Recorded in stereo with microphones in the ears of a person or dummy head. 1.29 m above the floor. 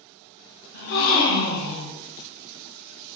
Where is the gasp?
60° left (ahead or behind), 1.2 m.